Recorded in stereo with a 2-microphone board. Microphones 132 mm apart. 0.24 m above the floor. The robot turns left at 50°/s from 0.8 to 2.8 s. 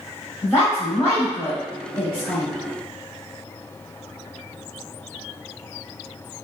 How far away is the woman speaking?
About 1.0 m.